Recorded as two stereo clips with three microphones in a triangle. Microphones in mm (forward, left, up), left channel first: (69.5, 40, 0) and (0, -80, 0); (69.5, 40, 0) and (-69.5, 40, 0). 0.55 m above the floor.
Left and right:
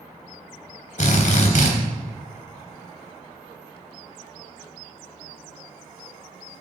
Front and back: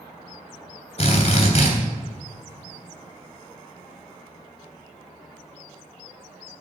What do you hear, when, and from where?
1.0 s a drill: 35° left, 3.5 m